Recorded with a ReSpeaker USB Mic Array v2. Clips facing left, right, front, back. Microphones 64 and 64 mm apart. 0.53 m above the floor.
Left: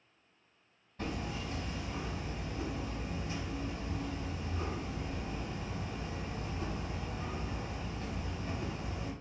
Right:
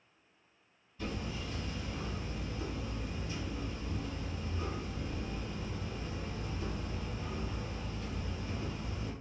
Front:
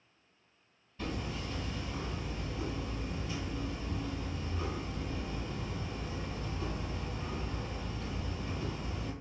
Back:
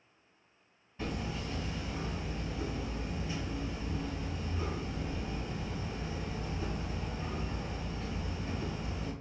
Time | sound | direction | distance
1.0 | hammering | 110° left | 1.9 m